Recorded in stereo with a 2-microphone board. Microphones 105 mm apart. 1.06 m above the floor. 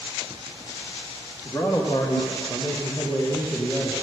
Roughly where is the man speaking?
Left.